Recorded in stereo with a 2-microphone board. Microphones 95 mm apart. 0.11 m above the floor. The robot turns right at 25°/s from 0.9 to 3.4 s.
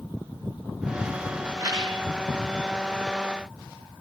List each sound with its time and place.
1.6 s a rattle: 40° right (ahead or behind), 8.5 m; by 2.0 s 50° right (ahead or behind), 8.5 m